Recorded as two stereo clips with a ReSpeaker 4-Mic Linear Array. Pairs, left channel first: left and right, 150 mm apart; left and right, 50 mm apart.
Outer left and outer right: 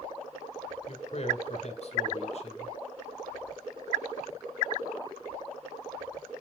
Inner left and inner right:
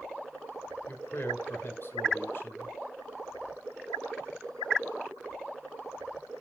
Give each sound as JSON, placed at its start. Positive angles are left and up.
{"t": 0.9, "sound": "a man speaking", "side_deg": 45, "distance_m": 1.8}